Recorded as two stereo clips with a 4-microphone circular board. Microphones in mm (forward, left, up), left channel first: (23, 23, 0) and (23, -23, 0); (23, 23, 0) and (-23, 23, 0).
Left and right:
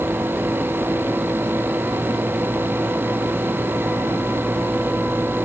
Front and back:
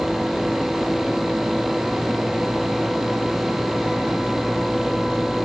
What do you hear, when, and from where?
Only background noise.